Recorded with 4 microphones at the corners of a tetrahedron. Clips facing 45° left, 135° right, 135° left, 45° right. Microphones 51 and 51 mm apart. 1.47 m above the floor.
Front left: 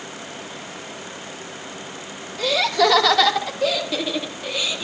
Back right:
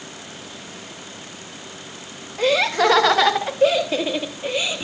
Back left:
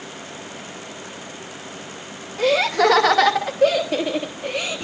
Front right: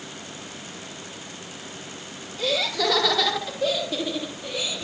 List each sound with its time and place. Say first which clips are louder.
2.4 s laughter: back right 1 dB, back left 8 dB; 170° left, 3 m; by 4.8 s 165° left, 4 m